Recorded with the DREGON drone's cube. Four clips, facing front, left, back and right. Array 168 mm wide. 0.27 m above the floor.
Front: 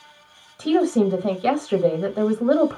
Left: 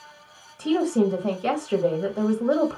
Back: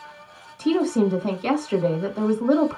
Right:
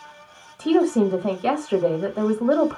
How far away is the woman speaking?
About 1.2 m.